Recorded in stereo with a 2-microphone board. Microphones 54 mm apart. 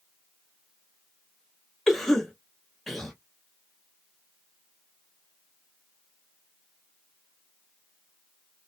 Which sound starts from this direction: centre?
A cough, at 1.9 s.